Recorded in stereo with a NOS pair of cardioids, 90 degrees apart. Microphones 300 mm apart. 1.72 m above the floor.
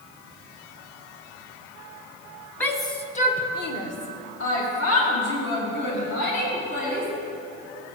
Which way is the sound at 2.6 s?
5° left.